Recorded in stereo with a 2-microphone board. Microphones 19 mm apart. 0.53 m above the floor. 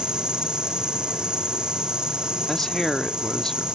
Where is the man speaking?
20° left (ahead or behind), 0.7 m.